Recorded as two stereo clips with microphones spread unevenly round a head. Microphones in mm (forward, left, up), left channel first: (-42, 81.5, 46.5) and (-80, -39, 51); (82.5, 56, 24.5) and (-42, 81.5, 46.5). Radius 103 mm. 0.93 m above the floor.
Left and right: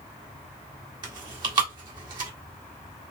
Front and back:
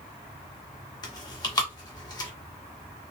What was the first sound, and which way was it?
Chewing, 55° right.